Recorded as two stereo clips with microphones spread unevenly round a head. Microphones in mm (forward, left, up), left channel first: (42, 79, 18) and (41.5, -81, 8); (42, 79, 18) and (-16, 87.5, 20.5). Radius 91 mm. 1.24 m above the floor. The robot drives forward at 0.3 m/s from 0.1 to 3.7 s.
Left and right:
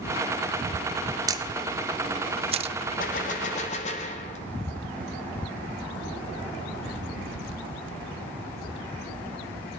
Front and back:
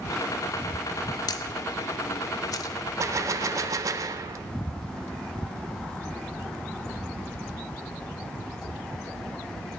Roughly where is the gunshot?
Behind left.